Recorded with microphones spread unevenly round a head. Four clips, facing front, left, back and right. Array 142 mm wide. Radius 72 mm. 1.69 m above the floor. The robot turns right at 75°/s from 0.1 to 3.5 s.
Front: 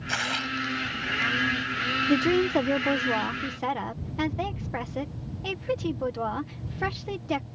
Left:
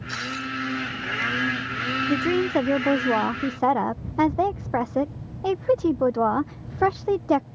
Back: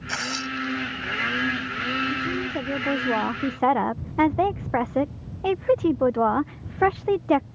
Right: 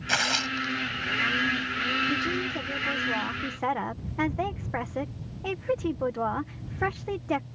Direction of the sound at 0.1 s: 85° right.